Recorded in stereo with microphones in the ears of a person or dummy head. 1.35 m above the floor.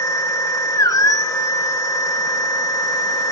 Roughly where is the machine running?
Centre.